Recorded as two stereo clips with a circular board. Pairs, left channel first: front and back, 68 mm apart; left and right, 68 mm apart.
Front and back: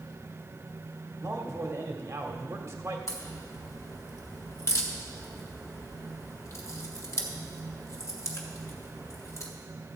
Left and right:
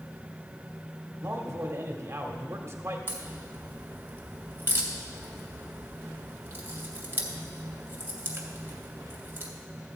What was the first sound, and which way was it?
A man speaking, 140° right.